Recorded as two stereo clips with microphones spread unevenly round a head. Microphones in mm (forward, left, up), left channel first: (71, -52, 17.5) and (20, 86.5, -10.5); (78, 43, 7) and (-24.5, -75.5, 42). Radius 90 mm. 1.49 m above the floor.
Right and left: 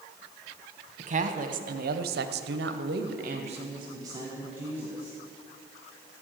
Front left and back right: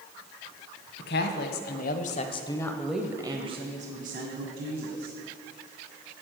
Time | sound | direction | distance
1.0 | a woman speaking | 70° left | 1.4 m